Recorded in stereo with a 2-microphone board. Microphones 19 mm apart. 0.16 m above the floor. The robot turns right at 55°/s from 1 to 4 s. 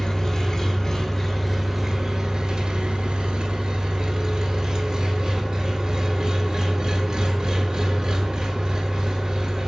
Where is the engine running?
145° left, 0.8 m; by 9.7 s 50° right, 0.8 m.